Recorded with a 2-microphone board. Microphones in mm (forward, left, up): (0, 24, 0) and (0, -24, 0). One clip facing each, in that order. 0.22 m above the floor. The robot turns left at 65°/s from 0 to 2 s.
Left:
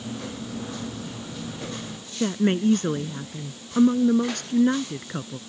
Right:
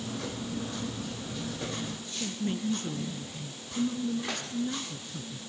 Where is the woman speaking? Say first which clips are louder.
Left 11 dB; 60° left (ahead or behind).